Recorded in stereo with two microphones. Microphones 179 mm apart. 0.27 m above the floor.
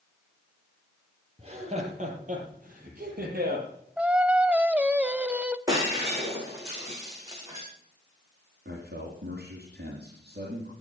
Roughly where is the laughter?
Right.